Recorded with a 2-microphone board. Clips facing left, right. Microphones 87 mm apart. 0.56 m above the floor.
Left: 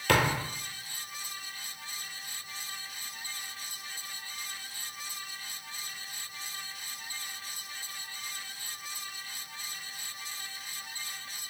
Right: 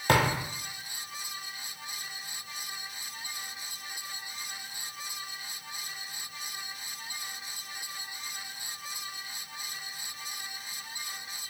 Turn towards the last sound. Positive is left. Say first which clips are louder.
# right 1 dB
turn(degrees=-25)  # may be behind; listen again after turning